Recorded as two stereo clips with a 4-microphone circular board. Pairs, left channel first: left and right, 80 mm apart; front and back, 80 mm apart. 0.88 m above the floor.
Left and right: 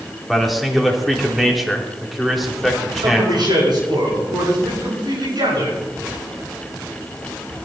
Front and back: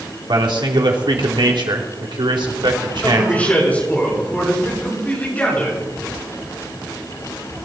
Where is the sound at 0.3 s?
Straight behind, 2.5 m.